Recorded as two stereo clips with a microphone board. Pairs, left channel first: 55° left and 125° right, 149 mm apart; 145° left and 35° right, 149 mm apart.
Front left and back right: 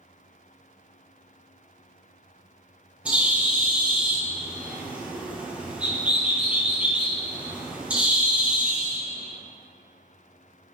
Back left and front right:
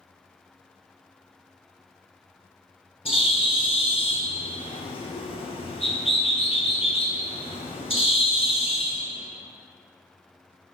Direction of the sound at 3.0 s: 160° left.